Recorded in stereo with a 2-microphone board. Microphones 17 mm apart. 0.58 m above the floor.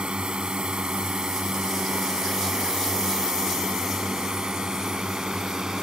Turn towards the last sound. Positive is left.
turn(degrees=-50)  # may be behind; listen again after turning